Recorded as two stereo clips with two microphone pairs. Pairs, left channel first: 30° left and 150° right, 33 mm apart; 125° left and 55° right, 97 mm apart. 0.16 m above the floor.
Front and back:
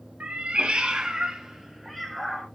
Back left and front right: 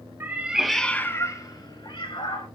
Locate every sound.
0.2 s a cat meowing: 115° right, 0.6 m; by 2.5 s 120° left, 1.0 m